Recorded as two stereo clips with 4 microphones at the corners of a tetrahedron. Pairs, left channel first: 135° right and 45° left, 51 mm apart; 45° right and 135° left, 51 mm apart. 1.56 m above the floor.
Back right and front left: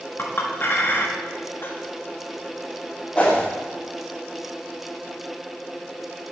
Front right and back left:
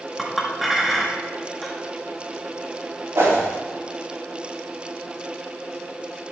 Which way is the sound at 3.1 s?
165° left.